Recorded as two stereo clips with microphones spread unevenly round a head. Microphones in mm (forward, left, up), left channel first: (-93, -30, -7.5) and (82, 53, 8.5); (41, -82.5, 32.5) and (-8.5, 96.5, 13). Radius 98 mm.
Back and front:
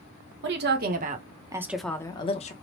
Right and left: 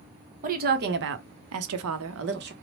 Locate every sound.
0.4 s a woman speaking: 60° left, 0.9 m; by 2.5 s 150° left, 0.7 m